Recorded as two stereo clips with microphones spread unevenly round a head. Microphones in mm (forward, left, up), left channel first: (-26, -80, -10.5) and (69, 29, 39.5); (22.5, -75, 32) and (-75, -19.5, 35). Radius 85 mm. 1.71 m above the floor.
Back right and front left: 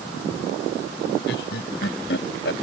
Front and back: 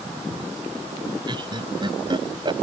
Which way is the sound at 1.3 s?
160° right.